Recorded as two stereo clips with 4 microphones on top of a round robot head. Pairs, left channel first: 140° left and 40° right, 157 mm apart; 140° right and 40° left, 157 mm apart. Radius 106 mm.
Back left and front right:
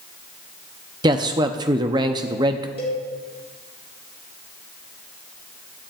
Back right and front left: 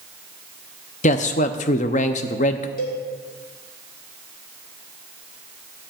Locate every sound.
1.0 s a man speaking: 100° right, 0.6 m
2.8 s a cowbell: 170° right, 1.6 m